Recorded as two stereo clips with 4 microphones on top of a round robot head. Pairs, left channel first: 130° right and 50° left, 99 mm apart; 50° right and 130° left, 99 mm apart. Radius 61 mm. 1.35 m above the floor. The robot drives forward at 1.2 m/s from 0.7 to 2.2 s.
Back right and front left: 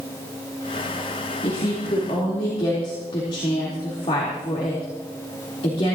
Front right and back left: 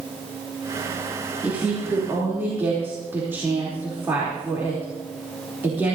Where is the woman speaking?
160° right, 3.5 m; by 6.0 s 165° right, 4 m.